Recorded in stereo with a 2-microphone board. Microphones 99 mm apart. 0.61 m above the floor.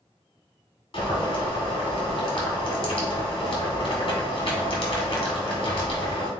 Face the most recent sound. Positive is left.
turn(degrees=65)  # may be behind; listen again after turning